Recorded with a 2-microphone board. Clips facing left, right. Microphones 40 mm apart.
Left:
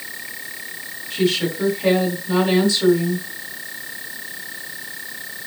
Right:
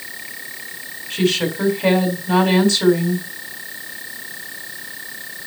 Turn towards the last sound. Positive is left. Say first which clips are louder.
# right 1 dB
turn(degrees=-55)  # may be behind; listen again after turning